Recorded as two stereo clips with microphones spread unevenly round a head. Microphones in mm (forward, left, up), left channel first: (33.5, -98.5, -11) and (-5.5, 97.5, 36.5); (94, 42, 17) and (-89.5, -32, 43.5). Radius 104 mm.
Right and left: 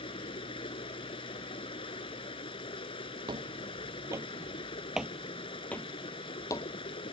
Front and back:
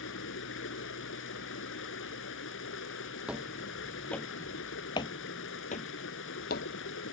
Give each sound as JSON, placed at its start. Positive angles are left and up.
{"t": 0.0, "sound": "running water", "azimuth_deg": -10}
{"t": 3.3, "sound": "footsteps", "azimuth_deg": 130}